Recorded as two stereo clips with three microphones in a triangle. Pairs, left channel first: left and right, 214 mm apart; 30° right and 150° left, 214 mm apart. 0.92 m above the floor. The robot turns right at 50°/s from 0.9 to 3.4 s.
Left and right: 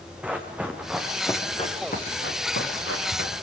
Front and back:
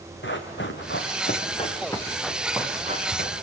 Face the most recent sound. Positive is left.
turn(degrees=115)